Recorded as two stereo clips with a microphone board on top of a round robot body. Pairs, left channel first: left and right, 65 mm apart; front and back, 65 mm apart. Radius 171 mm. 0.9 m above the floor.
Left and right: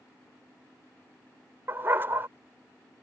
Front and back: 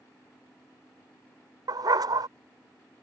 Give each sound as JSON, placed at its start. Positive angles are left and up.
{"t": 1.7, "sound": "a dog barking", "azimuth_deg": -155}